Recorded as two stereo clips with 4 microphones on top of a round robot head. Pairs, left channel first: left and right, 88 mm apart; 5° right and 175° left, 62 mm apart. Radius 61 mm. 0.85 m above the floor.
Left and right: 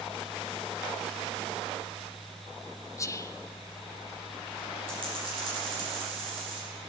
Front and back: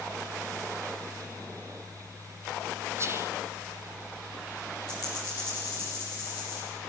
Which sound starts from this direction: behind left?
Whispering, at 3.0 s.